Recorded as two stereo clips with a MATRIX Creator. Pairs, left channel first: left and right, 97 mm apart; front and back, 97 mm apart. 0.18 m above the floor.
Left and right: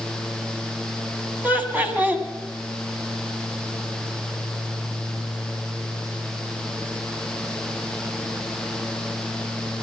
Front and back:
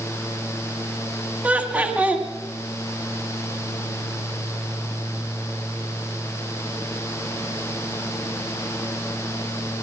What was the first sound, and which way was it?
Laughter, 130° right.